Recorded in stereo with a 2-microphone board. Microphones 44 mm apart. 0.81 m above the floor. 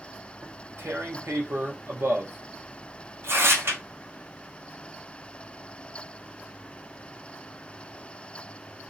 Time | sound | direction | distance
0.4 | tearing paper | 75° right (ahead or behind) | 1.0 m